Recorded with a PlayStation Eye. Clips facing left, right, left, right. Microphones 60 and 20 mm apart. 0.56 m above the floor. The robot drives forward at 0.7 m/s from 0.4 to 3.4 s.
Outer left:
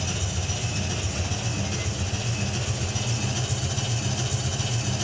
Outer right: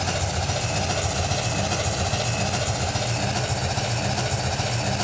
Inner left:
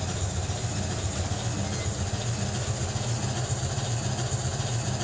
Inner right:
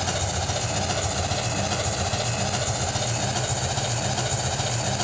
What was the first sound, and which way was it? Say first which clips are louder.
An engine running: outer right 6 dB, inner right 7 dB; 60° right (ahead or behind).